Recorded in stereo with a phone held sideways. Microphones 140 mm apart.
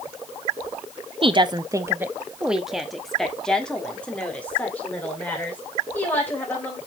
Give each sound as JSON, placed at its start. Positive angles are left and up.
{"t": 1.2, "sound": "a woman speaking", "side_deg": -40, "distance_m": 0.6}